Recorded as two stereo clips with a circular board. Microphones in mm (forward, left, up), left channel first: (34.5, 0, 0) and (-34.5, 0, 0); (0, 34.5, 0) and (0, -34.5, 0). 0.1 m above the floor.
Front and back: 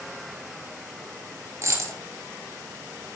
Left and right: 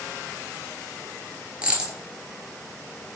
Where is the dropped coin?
165° right, 0.7 m.